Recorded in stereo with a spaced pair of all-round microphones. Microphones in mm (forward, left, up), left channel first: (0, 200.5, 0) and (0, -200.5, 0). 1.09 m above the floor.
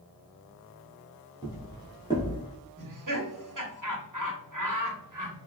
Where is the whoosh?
I don't hear a whoosh.